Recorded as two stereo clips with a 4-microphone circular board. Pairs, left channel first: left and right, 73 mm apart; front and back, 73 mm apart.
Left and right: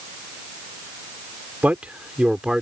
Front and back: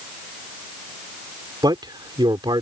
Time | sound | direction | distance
1.6 | a man speaking | 160° right | ?